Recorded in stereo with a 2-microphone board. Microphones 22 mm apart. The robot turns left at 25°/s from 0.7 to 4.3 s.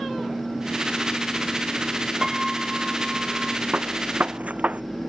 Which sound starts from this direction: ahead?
A piano, at 2.2 s.